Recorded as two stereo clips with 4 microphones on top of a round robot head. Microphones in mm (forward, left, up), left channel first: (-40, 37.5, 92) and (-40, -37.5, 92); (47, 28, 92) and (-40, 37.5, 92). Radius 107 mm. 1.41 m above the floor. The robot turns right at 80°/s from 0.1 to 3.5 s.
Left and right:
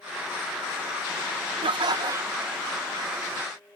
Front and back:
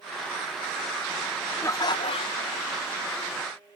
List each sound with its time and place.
1.6 s laughter: 75° right; by 2.7 s 10° left